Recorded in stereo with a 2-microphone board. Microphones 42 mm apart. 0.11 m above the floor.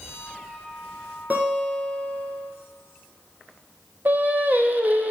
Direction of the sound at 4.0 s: 45° right (ahead or behind).